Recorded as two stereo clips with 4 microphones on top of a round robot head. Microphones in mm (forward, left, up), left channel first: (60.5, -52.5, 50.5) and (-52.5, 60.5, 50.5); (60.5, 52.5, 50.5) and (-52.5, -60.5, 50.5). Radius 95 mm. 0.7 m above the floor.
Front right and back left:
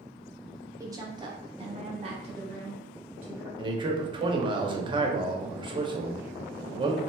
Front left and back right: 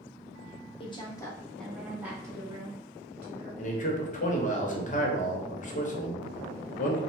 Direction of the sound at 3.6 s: 80° left.